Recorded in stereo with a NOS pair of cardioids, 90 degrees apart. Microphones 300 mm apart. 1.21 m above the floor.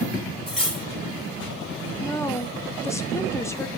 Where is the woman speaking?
10° left, 1.1 m.